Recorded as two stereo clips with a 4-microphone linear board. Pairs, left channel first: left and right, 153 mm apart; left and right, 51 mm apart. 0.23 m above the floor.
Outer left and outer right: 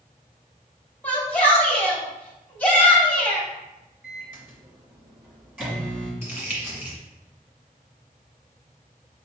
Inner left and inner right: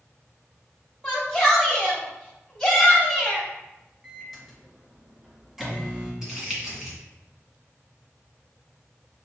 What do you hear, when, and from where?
1.0 s a shout: 10° left (ahead or behind), 1.1 m
4.0 s a microwave: 10° right (ahead or behind), 1.8 m
6.2 s crumpling: 15° right (ahead or behind), 1.7 m